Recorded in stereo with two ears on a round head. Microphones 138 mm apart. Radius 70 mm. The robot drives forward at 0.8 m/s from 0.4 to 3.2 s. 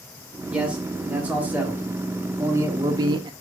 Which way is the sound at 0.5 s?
5° right (ahead or behind).